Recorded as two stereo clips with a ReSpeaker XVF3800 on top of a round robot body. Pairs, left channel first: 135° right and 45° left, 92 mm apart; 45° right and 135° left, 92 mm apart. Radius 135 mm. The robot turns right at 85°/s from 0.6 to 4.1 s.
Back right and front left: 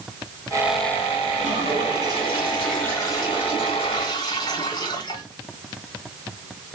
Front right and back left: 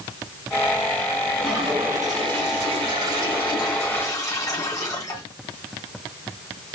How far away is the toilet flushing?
About 2.5 m.